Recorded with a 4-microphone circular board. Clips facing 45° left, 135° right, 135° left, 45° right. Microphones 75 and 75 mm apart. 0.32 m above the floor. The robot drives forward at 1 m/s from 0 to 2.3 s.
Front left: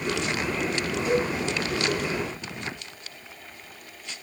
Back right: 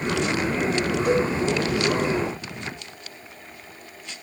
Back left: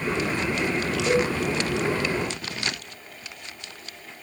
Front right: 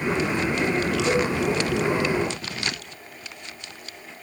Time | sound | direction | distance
1.1 | a cowbell | 105° right | 3 m